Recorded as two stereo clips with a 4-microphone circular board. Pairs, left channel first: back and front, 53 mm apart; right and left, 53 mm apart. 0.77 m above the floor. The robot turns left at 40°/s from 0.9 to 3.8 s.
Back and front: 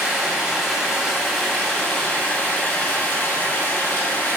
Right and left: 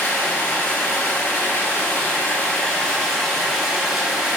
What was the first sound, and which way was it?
Running water, 70° right.